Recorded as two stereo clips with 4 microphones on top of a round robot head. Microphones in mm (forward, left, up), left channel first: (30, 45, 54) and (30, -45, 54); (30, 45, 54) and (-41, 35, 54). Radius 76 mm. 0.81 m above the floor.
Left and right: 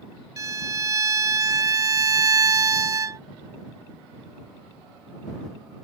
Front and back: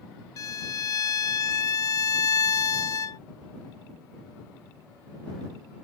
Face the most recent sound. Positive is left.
turn(degrees=-40)